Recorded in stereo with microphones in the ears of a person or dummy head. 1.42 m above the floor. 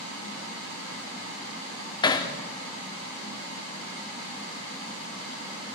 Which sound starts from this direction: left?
Hammering, at 2.0 s.